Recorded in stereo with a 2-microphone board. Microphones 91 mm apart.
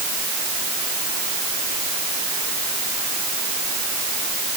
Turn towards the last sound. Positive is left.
No sound to turn to.